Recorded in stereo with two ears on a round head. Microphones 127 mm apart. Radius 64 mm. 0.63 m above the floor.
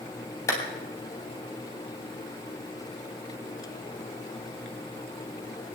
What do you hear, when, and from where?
0.5 s a clap: 20° left (ahead or behind), 3.5 m